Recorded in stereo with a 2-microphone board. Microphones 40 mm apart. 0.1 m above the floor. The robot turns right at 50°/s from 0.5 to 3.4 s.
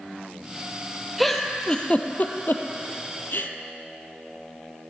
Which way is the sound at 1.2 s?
Centre (ahead or behind).